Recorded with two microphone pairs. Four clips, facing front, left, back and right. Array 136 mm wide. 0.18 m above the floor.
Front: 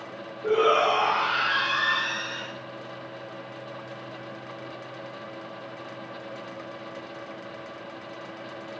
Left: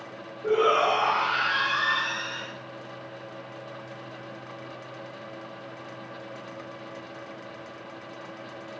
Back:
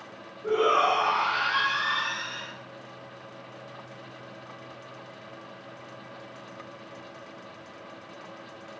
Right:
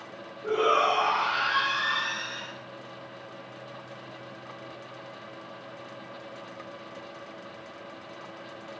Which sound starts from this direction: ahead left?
A shout, at 0.4 s.